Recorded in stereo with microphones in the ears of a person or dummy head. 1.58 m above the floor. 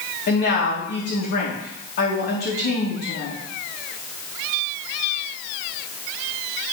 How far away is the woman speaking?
About 3.5 m.